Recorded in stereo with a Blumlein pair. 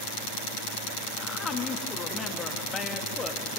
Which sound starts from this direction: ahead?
A woman speaking, at 1.2 s.